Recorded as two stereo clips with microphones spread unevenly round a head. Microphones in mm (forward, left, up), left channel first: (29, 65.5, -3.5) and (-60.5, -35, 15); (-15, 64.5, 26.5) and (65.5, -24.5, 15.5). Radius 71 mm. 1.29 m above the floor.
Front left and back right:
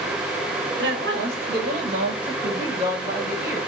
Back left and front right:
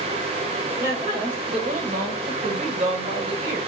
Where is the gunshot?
No gunshot in this recording.